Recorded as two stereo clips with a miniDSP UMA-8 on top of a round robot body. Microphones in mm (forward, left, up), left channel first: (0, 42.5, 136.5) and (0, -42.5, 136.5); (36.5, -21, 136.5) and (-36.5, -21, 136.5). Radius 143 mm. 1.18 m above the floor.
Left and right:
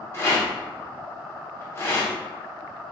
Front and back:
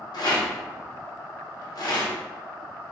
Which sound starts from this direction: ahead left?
A rattle, at 0.1 s.